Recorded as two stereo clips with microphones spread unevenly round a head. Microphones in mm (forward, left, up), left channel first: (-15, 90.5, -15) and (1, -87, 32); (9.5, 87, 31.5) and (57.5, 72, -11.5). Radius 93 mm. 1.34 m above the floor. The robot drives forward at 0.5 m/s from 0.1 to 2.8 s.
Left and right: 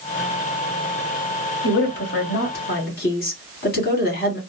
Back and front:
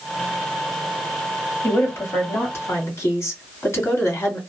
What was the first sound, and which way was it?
A woman speaking, 115° left.